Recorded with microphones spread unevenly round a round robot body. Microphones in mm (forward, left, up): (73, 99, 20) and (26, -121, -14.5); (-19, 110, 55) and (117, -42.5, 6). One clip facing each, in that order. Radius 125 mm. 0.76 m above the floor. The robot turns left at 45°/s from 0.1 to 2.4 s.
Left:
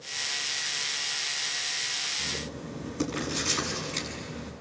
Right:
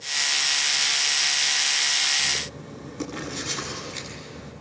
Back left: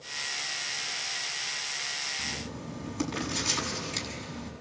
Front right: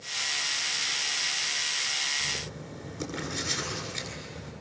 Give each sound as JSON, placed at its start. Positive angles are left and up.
{"t": 2.2, "sound": "writing", "azimuth_deg": 170, "distance_m": 7.5}